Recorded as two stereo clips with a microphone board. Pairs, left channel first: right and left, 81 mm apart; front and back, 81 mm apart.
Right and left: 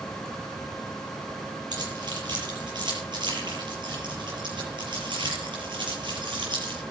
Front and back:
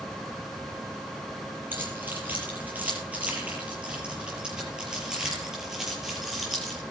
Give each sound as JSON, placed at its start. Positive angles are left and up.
{"t": 1.7, "sound": "keys jangling", "azimuth_deg": 115, "distance_m": 6.5}